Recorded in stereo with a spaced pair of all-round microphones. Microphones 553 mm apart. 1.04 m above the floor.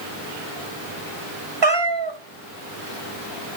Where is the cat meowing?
50° right (ahead or behind), 1.4 m.